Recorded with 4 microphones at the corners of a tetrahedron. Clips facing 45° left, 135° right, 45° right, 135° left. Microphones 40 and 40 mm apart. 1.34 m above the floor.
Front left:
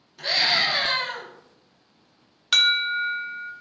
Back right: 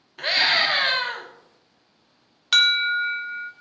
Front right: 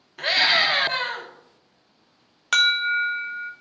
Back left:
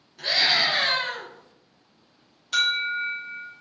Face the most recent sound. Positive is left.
turn(degrees=-45)